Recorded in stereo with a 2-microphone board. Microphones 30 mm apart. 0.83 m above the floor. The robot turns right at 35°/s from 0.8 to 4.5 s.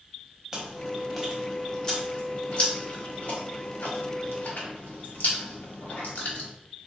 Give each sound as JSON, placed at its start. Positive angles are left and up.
{"t": 0.5, "sound": "chewing", "side_deg": -15, "distance_m": 0.8}